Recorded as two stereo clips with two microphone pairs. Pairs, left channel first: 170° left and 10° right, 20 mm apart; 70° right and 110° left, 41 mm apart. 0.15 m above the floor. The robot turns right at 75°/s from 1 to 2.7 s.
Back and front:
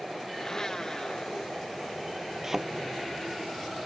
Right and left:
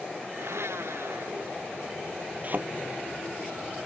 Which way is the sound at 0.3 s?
110° left.